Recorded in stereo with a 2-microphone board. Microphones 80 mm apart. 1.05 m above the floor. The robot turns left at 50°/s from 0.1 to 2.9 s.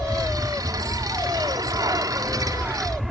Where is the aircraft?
30° right; by 3.1 s 170° right.